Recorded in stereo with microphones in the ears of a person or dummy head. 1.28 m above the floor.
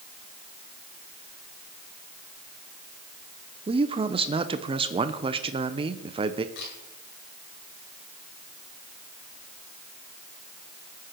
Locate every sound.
3.7 s a man speaking: 20° right (ahead or behind), 0.6 m
6.5 s a camera shutter: 65° left (ahead or behind), 6.5 m